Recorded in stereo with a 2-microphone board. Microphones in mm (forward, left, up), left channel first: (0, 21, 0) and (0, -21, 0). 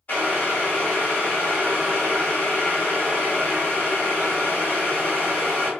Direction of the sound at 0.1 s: 40° left (ahead or behind).